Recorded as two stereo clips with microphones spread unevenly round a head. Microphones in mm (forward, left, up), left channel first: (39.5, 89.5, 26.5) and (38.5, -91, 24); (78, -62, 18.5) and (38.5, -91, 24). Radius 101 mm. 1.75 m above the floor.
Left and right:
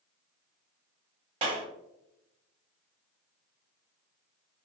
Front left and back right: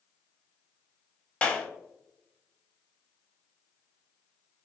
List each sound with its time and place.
1.4 s a clap: 30° right, 0.8 m